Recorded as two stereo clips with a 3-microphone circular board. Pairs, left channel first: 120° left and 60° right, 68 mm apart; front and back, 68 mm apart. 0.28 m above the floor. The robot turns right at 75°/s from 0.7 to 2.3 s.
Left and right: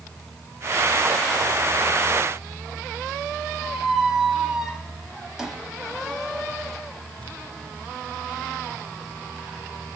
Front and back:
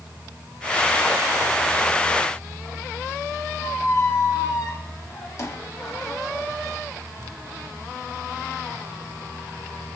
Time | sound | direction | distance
3.6 | a squeak | 20° left | 0.6 m